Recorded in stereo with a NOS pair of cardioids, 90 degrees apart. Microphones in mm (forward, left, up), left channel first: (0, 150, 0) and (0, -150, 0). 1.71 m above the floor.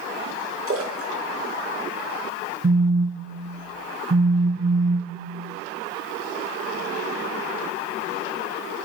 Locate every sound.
0.7 s a splash: 45° right, 0.8 m
2.6 s a phone buzzing: 15° right, 0.5 m